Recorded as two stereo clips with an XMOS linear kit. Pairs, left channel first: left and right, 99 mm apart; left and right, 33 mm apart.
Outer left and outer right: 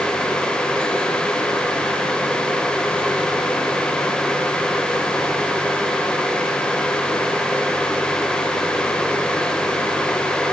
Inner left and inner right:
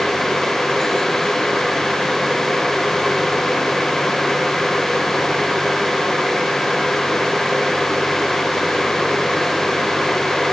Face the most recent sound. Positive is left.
No sound to turn to.